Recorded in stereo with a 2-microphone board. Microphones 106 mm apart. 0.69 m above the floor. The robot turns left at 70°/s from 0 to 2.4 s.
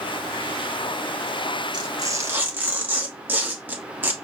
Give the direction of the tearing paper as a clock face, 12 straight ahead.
4 o'clock.